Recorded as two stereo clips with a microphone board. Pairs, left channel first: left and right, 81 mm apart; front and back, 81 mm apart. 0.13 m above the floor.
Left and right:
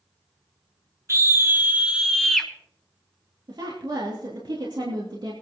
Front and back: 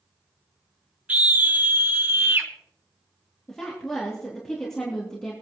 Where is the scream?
115° right, 1.6 m; by 2.5 s 165° left, 1.3 m.